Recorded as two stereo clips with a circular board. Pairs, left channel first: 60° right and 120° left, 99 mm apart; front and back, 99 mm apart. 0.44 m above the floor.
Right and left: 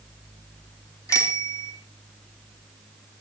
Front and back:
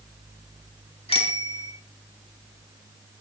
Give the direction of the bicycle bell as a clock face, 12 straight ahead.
12 o'clock.